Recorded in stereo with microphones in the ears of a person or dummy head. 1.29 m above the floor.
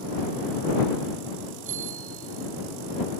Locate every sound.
1.6 s a bicycle bell: 45° right (ahead or behind); by 2.7 s 50° right (ahead or behind)